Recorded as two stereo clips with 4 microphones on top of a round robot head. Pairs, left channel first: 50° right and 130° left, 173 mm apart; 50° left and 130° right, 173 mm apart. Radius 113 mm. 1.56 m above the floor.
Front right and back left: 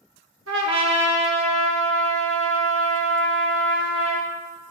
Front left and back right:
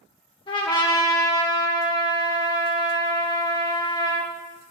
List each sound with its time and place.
0.5 s a trumpet: 110° left, 0.9 m